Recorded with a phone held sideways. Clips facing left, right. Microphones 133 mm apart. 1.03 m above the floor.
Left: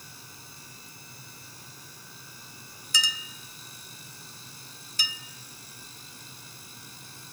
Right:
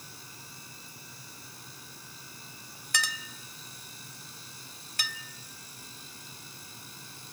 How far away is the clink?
About 1.3 m.